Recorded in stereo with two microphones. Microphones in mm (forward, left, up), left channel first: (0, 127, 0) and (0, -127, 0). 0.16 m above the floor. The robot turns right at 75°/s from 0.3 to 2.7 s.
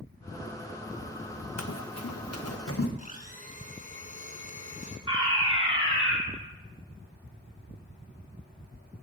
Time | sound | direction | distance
1.6 | running footsteps | 75° left (ahead or behind) | 0.7 m
3.0 | a blender | 30° left (ahead or behind) | 1.0 m
5.1 | a fire alarm | 20° right (ahead or behind) | 2 m